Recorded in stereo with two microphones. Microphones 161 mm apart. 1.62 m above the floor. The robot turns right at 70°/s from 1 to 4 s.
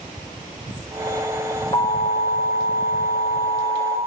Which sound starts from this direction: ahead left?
An alarm, at 1.7 s.